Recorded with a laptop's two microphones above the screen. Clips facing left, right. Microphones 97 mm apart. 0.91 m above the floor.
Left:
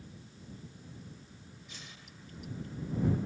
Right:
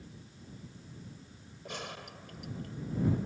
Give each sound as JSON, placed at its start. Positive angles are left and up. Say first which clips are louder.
{"t": 1.6, "sound": "a gunshot", "louder": "right 10 dB", "side_deg": -80}